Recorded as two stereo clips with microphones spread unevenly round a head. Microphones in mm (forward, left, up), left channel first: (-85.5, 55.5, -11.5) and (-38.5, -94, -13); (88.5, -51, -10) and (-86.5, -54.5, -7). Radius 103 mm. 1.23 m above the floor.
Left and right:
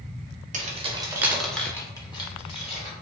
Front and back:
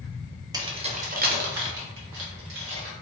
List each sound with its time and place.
0.5 s keys jangling: 110° right, 0.8 m; by 2.9 s 155° left, 1.4 m